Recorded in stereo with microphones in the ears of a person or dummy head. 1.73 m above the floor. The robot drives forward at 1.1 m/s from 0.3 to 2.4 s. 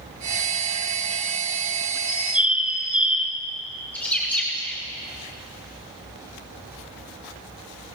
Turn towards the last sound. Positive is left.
turn(degrees=5)  # may be behind; listen again after turning